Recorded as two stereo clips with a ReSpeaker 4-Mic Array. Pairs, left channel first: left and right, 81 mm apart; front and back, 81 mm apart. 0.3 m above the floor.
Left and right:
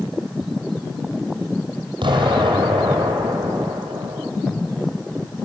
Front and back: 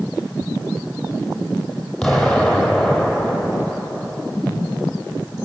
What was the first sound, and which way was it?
An explosion, 80° right.